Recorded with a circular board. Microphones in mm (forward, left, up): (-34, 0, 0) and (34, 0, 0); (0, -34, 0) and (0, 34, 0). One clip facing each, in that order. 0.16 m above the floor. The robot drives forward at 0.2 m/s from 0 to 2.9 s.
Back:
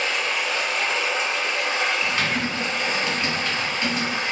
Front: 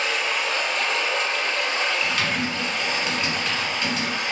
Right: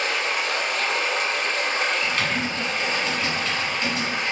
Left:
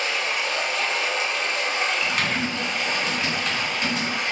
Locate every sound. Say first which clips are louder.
0.0 s running water: even, right 1 dB; 85° right, 0.8 m; by 4.3 s 130° right, 1.0 m
2.0 s typing on a keyboard: back 1 dB, even; 150° left, 1.6 m; by 4.1 s 155° left, 1.7 m